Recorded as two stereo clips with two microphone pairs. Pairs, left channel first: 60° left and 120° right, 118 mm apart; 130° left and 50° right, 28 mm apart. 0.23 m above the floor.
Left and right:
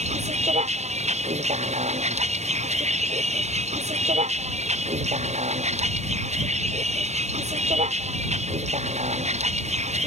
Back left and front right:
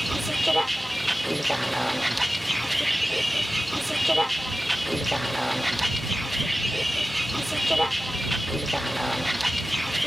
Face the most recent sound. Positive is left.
turn(degrees=-140)